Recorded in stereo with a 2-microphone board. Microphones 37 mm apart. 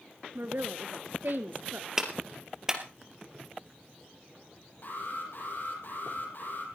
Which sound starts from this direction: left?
An alarm, at 4.8 s.